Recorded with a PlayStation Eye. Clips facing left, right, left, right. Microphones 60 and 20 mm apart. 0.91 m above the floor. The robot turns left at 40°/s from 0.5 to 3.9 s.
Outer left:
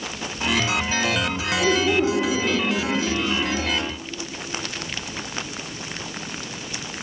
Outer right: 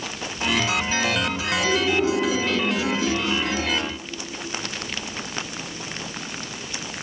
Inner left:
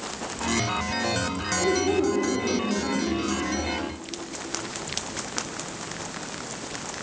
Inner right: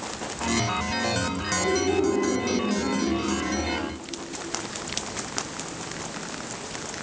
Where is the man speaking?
50° left, 1.7 m; by 3.2 s 15° right, 1.7 m.